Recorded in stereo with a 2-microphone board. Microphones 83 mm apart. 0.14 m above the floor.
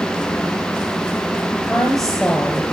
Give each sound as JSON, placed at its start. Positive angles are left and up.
{"t": 1.7, "sound": "a woman speaking", "side_deg": 5, "distance_m": 2.5}